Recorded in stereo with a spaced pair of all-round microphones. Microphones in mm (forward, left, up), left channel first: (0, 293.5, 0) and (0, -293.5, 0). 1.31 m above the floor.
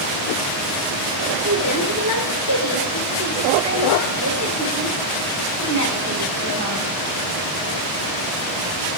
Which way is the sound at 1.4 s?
30° right (ahead or behind).